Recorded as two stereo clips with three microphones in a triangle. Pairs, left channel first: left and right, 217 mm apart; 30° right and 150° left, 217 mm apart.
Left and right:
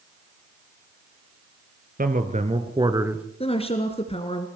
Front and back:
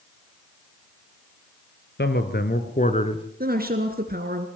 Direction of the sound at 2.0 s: 50° right.